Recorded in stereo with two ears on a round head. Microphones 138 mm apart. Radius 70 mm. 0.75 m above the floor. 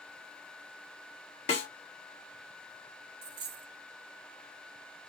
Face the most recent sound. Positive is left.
turn(degrees=-75)  # may be behind; listen again after turning